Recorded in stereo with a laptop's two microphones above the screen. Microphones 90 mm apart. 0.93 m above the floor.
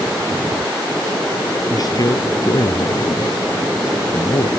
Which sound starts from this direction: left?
A man speaking, at 1.7 s.